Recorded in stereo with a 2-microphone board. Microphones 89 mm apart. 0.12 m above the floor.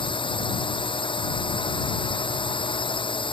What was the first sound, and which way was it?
A drone, 75° left (ahead or behind).